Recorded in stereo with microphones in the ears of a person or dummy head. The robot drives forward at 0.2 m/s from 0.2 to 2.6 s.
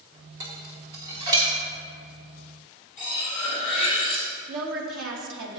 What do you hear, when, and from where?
0.4 s dishes clattering: 25° right (ahead or behind), 1.0 m
3.0 s cutlery clinking: 10° left (ahead or behind), 1.1 m
4.5 s a woman speaking: 65° right (ahead or behind), 1.2 m